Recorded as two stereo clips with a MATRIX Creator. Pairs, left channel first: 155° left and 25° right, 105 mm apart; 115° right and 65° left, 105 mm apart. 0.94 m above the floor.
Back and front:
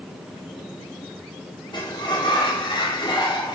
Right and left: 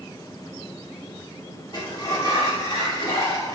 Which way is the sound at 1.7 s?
160° right.